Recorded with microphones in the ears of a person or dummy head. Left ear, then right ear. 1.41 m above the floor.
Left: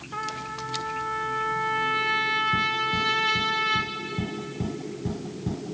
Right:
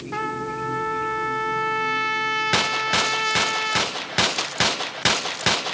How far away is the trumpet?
About 0.9 m.